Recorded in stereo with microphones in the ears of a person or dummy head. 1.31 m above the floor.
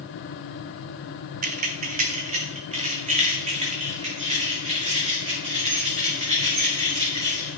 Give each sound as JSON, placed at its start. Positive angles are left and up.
{"t": 1.4, "sound": "keys jangling", "side_deg": -45, "distance_m": 0.6}